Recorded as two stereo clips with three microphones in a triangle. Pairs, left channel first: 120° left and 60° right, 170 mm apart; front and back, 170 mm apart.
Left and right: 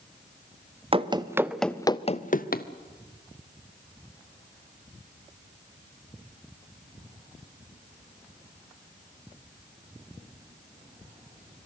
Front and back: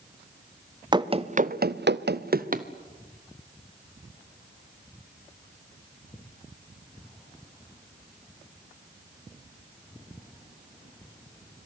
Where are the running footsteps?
115° right, 1.2 m; by 2.7 s 145° left, 1.3 m.